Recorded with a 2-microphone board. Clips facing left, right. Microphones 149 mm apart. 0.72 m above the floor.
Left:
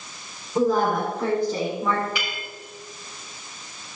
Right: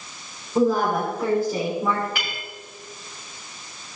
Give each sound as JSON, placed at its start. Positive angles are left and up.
{"t": 0.6, "sound": "a woman speaking", "side_deg": 0, "distance_m": 4.0}
{"t": 2.1, "sound": "a clink", "side_deg": -50, "distance_m": 3.5}